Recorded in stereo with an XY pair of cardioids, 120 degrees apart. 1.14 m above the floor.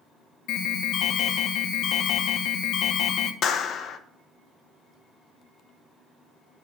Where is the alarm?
65° left, 0.7 m.